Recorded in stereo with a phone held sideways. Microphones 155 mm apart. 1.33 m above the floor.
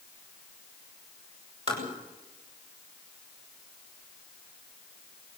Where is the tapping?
45° right (ahead or behind), 7.5 m.